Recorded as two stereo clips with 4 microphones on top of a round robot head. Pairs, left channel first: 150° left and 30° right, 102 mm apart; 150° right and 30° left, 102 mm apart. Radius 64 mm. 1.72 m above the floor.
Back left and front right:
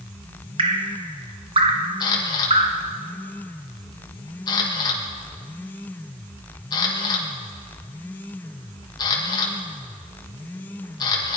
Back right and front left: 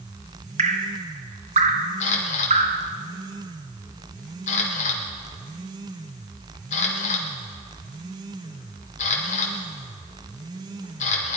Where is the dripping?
10° left, 1.1 m.